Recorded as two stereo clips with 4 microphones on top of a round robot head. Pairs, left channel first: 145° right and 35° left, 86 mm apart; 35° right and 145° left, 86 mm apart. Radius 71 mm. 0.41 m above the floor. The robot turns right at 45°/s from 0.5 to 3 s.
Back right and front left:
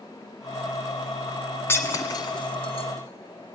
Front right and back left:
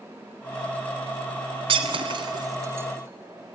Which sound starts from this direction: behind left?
Breaking glass, at 1.7 s.